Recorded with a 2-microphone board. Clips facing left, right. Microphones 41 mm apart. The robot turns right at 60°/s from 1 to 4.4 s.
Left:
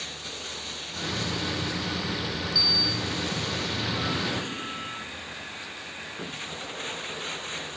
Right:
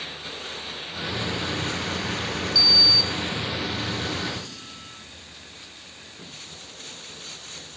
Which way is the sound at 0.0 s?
170° right.